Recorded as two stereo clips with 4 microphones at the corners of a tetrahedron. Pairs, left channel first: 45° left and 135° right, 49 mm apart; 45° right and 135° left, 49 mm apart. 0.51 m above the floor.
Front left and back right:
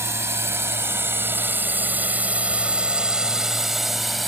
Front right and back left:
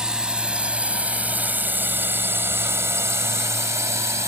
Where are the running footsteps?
I don't hear running footsteps.